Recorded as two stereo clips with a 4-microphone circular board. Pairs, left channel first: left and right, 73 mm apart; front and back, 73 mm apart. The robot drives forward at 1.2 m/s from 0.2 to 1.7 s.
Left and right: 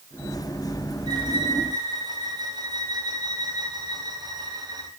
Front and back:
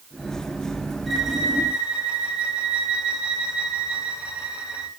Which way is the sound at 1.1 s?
90° right.